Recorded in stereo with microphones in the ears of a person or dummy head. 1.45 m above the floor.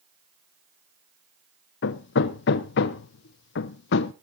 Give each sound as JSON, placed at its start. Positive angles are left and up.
{"t": 1.8, "sound": "hammering", "side_deg": 55, "distance_m": 0.6}